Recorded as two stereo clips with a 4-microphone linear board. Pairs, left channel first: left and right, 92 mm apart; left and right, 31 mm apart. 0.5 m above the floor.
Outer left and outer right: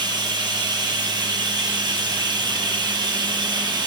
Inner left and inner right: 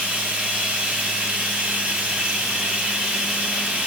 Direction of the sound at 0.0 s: 50° right (ahead or behind).